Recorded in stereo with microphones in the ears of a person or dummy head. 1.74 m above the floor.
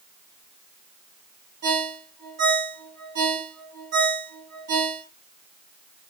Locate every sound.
1.6 s a ringtone: 60° right (ahead or behind), 2.5 m